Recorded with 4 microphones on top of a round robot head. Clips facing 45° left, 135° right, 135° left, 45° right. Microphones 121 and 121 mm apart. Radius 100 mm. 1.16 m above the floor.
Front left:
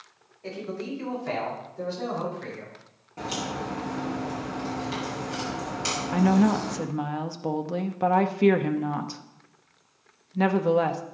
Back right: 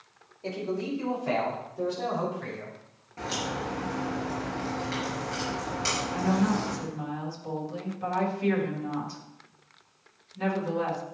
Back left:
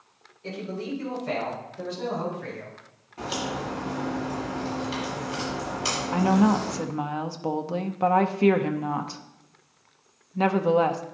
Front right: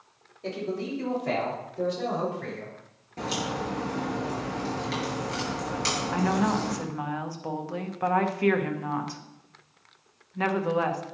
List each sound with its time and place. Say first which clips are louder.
0.4 s a man speaking: back right 2 dB, front right 2 dB; 70° right, 4.5 m; by 2.8 s 55° right, 6 m
3.2 s a crack: front left 1 dB, even; 25° right, 5.5 m
6.1 s a woman speaking: front left 6 dB, back left 5 dB; 70° left, 0.8 m